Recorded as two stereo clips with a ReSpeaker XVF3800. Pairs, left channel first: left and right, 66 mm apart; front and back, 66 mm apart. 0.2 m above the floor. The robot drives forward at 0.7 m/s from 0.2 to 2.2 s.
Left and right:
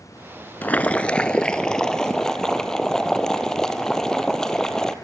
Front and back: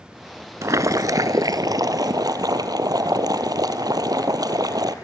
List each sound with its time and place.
0.6 s boiling: 150° left, 0.6 m; by 5.0 s 170° left, 1.6 m